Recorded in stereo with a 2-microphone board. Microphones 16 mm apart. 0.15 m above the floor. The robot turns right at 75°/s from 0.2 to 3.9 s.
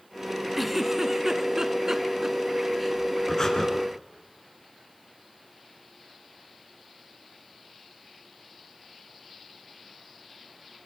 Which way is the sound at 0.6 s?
Centre (ahead or behind).